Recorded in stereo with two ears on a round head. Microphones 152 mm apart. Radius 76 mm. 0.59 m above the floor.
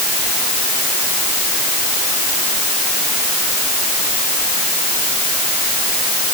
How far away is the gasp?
I don't hear a gasp.